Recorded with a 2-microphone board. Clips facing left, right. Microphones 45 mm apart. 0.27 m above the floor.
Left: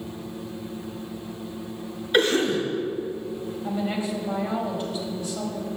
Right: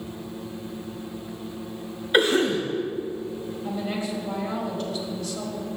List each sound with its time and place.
2.1 s a cough: 10° right (ahead or behind), 1.0 m
3.6 s a woman speaking: 20° left (ahead or behind), 1.2 m